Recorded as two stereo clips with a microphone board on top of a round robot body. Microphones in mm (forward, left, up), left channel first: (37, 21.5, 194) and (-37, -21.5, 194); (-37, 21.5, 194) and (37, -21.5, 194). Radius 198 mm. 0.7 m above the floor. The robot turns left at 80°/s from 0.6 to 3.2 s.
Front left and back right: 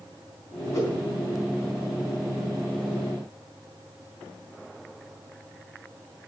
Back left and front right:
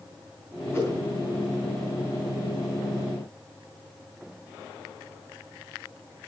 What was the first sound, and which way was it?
A whoosh, 85° left.